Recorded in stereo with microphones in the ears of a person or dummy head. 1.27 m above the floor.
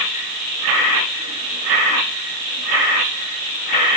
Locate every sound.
Only background noise.